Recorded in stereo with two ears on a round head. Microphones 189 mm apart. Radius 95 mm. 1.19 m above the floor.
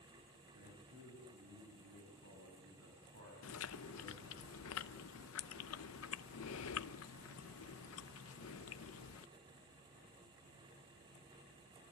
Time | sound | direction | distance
0.5 | a man speaking | 75° right (ahead or behind) | 8.5 m
3.4 | chewing | 70° left (ahead or behind) | 0.7 m